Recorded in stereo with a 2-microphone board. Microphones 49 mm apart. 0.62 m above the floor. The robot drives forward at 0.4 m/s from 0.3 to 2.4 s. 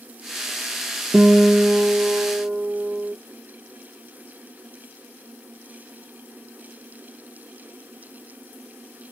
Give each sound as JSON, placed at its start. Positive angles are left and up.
{"t": 1.1, "sound": "a guitar", "side_deg": -30, "distance_m": 2.0}